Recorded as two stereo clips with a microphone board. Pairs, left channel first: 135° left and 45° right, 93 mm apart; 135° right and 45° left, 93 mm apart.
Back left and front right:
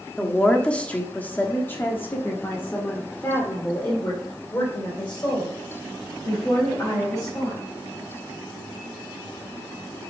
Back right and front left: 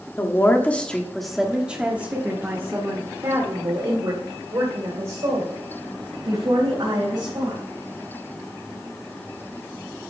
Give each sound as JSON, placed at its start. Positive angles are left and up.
{"t": 0.2, "sound": "a woman speaking", "azimuth_deg": -150, "distance_m": 1.2}